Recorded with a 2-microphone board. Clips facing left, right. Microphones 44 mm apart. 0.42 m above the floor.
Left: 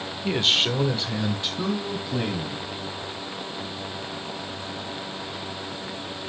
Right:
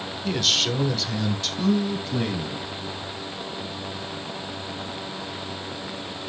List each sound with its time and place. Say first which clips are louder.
0.2 s a man speaking: left 2 dB; 25° left (ahead or behind), 0.9 m; by 2.6 s 15° left (ahead or behind), 2.5 m